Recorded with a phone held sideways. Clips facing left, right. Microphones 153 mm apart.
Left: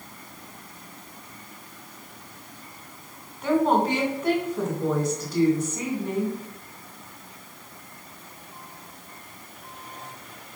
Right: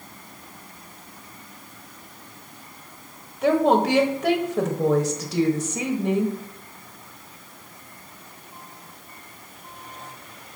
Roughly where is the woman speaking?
Right.